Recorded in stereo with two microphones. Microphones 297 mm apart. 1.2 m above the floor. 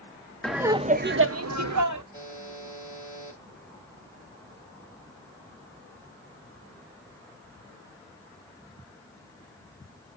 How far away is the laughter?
About 0.5 m.